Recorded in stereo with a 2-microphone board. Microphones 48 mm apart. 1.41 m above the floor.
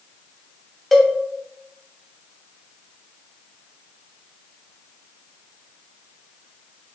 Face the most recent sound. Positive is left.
turn(degrees=0)  # may be behind; listen again after turning